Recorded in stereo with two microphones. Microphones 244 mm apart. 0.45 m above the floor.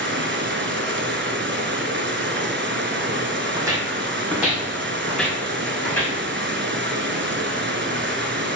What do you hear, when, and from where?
0.0 s running water: 50° right (ahead or behind), 0.7 m
3.5 s footsteps: 15° right (ahead or behind), 1.3 m; by 6.2 s 5° left (ahead or behind), 2.5 m